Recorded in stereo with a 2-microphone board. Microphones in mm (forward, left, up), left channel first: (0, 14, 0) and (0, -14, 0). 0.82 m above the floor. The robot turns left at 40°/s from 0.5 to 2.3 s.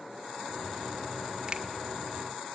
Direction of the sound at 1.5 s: 25° right (ahead or behind).